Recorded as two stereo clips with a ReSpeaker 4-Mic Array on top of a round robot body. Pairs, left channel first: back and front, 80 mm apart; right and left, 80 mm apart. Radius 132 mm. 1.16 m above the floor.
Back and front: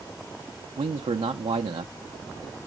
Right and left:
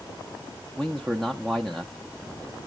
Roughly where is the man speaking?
Ahead.